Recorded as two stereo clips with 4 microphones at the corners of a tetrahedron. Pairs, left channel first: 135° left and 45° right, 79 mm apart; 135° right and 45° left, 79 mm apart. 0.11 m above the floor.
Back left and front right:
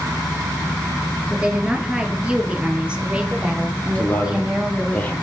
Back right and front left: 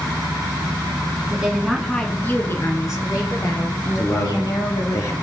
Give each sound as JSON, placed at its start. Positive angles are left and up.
{"t": 1.3, "sound": "a woman speaking", "azimuth_deg": 5, "distance_m": 1.1}
{"t": 4.0, "sound": "a man speaking", "azimuth_deg": -165, "distance_m": 1.6}